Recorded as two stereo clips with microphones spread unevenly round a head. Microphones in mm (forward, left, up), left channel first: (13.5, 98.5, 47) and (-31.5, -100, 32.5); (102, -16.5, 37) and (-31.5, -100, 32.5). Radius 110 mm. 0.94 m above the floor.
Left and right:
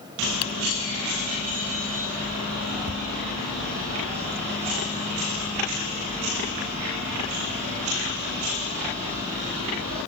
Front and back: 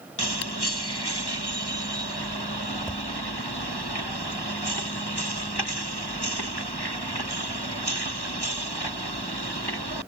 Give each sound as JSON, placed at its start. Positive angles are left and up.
{"t": 0.4, "sound": "typing on a keyboard", "azimuth_deg": 65}
{"t": 2.9, "sound": "tapping", "azimuth_deg": -60}